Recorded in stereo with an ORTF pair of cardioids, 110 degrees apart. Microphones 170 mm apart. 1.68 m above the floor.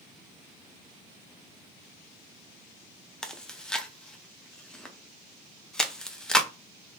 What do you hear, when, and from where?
3.2 s chewing: 5° left, 0.6 m